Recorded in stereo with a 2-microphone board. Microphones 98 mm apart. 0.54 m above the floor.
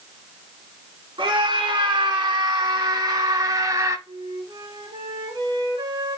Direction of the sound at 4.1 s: 45° right (ahead or behind).